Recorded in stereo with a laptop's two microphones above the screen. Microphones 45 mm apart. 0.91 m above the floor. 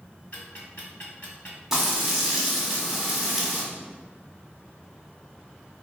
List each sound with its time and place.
0.3 s ticking: 50° left (ahead or behind), 1.5 m
1.7 s frying: 10° right (ahead or behind), 0.8 m